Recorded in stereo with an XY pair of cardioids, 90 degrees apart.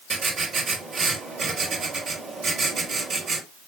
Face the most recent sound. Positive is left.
turn(degrees=-60)